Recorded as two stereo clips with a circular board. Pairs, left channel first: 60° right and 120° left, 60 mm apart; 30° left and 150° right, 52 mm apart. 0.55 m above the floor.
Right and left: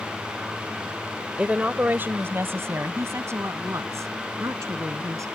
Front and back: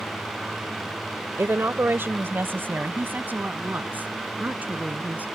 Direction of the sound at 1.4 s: 170° right.